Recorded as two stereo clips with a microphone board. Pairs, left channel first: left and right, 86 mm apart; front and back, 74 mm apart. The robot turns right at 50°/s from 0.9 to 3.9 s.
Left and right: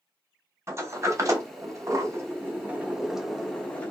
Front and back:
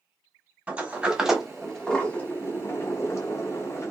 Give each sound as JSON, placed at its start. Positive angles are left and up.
{"t": 0.7, "sound": "a sliding door", "azimuth_deg": -120, "distance_m": 0.9}